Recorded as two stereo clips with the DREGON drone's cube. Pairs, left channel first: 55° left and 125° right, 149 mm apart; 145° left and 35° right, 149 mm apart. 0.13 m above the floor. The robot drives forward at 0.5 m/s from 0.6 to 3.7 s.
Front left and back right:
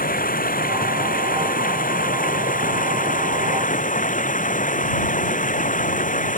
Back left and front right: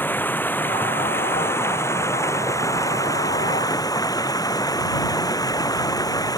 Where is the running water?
70° left; by 6.4 s 80° left.